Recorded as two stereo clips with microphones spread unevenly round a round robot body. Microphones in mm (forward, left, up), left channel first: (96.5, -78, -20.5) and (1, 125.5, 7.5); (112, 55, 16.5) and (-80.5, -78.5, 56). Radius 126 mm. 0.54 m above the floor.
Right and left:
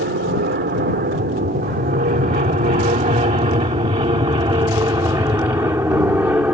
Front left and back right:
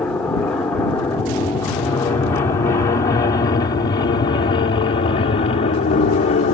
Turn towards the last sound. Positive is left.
turn(degrees=35)